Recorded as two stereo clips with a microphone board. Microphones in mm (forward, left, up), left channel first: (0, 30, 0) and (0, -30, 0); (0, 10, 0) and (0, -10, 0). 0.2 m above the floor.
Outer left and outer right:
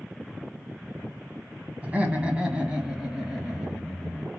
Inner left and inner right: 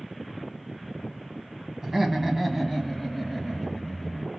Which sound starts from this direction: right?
Laughter, at 1.8 s.